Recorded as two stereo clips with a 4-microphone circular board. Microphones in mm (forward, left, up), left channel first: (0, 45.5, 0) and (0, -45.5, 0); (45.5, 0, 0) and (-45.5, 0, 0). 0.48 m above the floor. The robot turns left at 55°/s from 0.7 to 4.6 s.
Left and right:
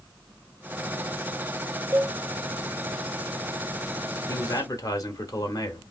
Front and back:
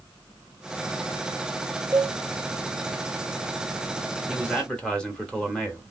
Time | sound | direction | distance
1.9 | a cowbell | 150° right | 1.2 m
4.3 | a man speaking | 90° left | 1.1 m